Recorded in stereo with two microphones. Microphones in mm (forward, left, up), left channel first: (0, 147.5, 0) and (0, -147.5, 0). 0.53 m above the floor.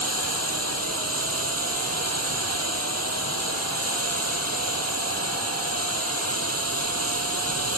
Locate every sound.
0.0 s running water: 55° right (ahead or behind)